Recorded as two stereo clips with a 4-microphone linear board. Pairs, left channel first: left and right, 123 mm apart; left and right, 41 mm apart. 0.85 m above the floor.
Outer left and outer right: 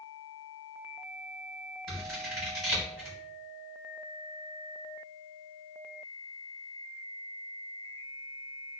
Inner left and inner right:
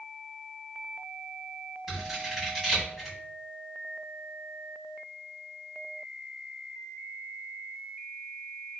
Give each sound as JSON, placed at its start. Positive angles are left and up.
{"t": 1.9, "sound": "scissors", "side_deg": 0, "distance_m": 1.9}